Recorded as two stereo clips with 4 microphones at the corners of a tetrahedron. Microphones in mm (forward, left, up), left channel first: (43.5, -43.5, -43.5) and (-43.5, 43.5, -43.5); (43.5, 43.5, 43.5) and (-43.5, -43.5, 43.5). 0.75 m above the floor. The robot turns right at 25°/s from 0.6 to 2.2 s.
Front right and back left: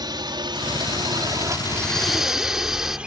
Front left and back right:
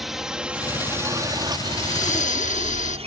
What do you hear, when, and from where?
0.0 s a drone: 140° left; by 3.1 s 145° right
1.7 s breathing: 35° left; by 3.0 s 50° left